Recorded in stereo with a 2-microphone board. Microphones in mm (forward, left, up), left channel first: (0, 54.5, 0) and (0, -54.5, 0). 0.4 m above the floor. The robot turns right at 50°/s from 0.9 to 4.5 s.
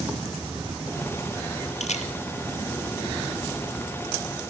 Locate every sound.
1.8 s a camera shutter: 80° left, 2.0 m; by 2.1 s 85° left, 2.0 m